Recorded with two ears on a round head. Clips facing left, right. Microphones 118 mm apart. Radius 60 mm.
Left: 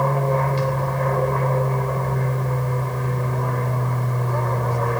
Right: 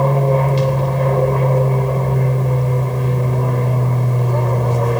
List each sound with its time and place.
0.0 s an aircraft: 25° right (ahead or behind)